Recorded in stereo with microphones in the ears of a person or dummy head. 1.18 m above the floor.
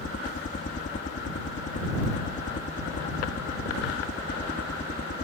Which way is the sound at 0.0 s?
40° left (ahead or behind).